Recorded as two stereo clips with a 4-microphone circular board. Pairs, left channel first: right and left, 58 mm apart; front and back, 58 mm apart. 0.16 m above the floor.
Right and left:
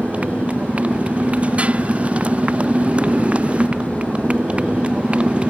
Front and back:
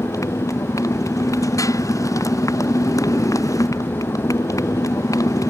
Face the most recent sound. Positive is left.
turn(degrees=20)